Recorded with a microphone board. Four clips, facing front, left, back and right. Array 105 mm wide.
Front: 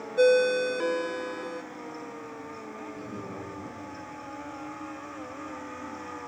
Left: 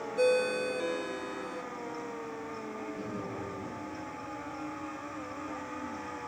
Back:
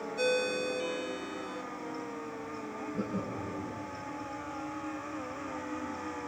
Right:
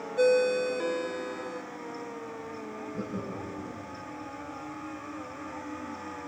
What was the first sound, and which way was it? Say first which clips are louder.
A ringtone: right 4 dB, front 10 dB; 15° right.